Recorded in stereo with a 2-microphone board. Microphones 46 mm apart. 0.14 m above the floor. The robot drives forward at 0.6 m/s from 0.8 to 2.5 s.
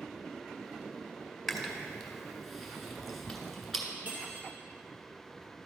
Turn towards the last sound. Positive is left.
turn(degrees=-40)  # may be behind; listen again after turning